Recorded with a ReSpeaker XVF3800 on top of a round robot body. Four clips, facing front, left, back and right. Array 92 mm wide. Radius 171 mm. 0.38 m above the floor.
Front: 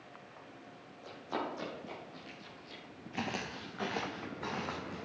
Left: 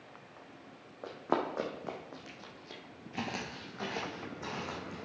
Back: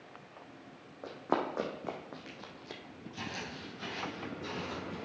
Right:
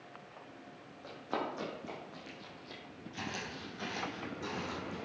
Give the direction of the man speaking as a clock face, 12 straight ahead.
I don't hear a man speaking.